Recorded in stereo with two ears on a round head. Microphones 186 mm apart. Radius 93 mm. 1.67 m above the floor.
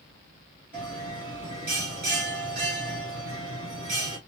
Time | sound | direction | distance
0.7 | a bell | 45° right (ahead or behind) | 2 m